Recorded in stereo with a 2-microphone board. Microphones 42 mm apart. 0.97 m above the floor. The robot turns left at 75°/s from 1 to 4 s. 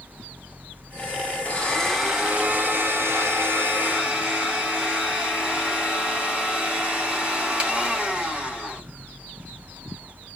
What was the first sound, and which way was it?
A blender, 35° left.